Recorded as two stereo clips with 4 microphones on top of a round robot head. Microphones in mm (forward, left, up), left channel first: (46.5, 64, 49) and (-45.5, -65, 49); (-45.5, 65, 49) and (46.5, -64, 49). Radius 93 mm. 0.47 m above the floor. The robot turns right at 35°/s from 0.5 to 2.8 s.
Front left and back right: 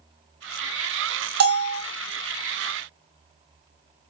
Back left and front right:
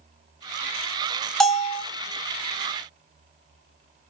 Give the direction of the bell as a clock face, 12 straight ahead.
5 o'clock.